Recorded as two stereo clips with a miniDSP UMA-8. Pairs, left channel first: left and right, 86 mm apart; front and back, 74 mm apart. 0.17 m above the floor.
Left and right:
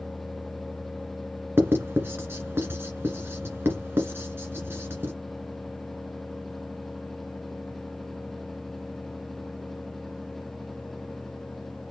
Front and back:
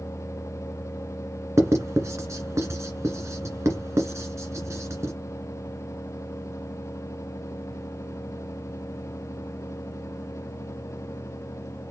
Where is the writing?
145° right, 1.6 m.